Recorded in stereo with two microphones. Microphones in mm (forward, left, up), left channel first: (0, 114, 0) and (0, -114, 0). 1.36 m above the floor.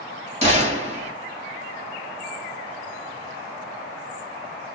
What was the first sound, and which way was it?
A gunshot, 30° right (ahead or behind).